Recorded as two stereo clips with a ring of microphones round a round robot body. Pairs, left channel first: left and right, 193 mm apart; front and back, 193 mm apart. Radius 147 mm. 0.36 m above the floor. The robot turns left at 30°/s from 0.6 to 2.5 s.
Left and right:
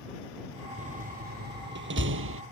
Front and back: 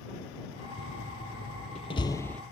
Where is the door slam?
40° right; by 2.4 s 85° right.